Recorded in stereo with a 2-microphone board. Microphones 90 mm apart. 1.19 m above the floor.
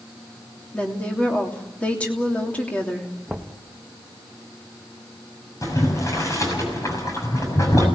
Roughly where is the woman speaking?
Centre.